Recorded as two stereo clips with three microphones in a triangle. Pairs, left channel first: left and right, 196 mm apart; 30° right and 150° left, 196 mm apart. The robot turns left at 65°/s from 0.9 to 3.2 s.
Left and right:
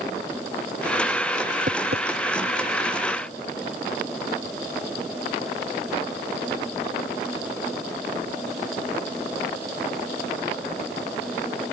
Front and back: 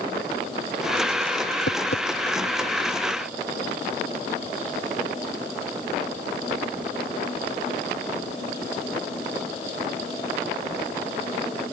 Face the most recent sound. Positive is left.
turn(degrees=-140)